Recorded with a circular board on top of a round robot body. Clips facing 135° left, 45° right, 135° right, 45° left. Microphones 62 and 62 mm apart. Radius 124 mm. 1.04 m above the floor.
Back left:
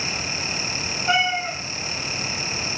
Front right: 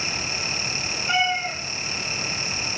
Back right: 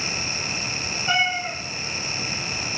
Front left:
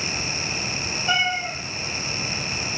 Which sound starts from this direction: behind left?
A cat meowing, at 1.1 s.